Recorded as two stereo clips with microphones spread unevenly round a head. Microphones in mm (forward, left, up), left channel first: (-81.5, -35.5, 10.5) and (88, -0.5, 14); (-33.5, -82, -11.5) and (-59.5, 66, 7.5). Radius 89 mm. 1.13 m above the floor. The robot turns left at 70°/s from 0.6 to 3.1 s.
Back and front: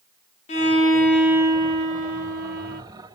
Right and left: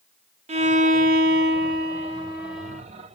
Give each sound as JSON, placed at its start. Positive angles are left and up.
{"t": 0.5, "sound": "a violin", "azimuth_deg": 145, "distance_m": 0.6}